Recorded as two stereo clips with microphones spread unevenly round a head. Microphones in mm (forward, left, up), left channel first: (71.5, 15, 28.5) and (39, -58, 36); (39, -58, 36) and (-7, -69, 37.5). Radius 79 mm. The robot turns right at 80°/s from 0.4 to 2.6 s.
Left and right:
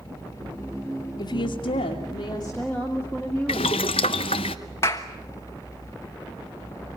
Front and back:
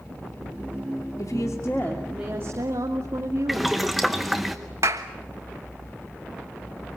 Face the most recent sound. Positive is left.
turn(degrees=140)